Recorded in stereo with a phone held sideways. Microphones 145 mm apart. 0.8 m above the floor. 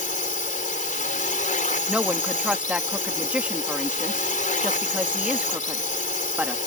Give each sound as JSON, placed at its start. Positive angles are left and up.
{"t": 0.0, "sound": "a drone", "side_deg": 65}
{"t": 1.9, "sound": "a woman speaking", "side_deg": -10}